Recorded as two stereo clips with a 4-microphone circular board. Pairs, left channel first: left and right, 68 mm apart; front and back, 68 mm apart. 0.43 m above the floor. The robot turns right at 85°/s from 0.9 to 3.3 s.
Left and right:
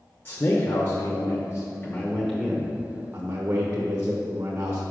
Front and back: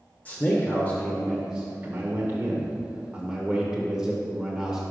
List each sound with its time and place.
0.2 s a man speaking: 50° left, 1.0 m; by 4.8 s 105° right, 1.0 m